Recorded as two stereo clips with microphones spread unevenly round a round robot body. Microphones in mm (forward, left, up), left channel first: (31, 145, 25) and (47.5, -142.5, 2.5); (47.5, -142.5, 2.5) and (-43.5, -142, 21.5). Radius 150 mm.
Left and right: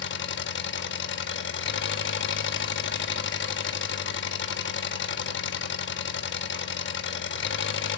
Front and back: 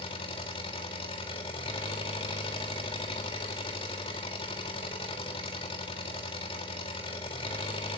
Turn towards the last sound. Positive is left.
turn(degrees=40)